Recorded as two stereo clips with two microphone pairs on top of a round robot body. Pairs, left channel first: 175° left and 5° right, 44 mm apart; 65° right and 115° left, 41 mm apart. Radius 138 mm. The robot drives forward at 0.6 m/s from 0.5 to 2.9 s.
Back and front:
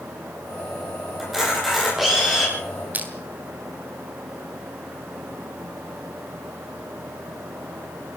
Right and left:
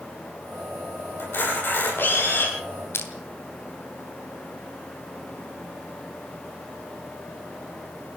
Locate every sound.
1.2 s a camera shutter: 90° right, 9.5 m; by 2.5 s 95° right, 9.5 m
2.9 s crushing: 60° right, 2.5 m